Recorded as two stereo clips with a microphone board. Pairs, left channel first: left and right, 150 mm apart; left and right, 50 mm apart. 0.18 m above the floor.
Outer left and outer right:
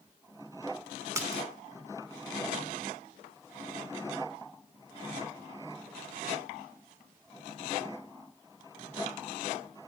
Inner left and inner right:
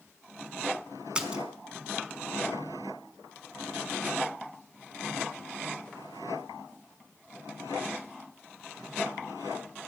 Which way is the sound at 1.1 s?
20° right (ahead or behind).